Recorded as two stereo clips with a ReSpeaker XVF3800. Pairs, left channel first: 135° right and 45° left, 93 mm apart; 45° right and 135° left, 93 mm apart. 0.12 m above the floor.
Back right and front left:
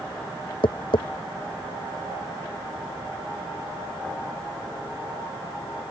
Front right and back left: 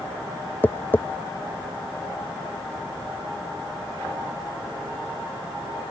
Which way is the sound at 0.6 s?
115° right.